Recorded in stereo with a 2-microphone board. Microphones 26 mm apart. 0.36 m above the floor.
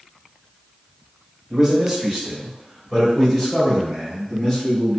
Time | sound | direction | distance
1.5 | a man speaking | 20° right (ahead or behind) | 1.6 m